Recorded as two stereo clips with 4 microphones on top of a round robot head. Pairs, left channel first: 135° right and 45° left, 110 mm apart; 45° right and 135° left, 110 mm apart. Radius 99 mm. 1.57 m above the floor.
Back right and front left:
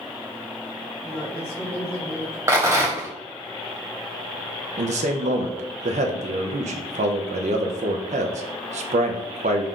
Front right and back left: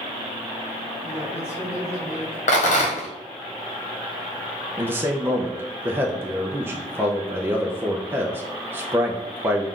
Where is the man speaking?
65° left, 0.5 m.